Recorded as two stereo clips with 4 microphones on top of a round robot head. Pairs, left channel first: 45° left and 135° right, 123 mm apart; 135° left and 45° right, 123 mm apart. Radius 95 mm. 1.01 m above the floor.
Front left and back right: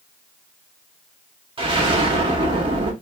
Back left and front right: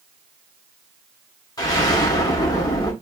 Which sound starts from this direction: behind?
An explosion, at 1.6 s.